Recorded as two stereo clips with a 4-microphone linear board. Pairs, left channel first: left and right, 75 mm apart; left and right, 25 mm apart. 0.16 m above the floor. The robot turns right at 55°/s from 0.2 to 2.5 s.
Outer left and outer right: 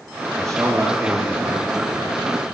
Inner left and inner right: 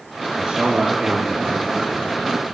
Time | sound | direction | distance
0.4 | a man speaking | 175° left | 2.5 m